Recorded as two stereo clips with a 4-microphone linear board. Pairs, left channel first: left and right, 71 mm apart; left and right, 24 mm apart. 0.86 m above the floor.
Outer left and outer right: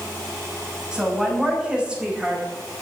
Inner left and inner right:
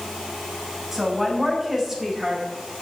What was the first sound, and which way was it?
A woman speaking, 15° right (ahead or behind).